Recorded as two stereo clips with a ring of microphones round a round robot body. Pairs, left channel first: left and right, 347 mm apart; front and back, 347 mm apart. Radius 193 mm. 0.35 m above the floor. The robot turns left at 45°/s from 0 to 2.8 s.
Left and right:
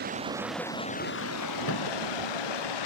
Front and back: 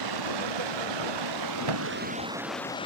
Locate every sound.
0.0 s running water: 155° right; by 2.9 s 80° left
1.7 s a thud: 150° left; by 2.0 s 135° left